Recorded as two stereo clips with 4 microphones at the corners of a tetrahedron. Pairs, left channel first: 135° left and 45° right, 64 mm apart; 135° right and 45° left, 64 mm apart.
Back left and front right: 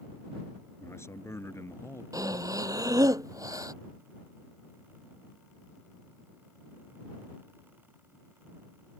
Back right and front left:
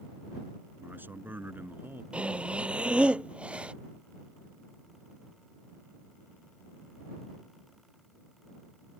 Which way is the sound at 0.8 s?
100° left.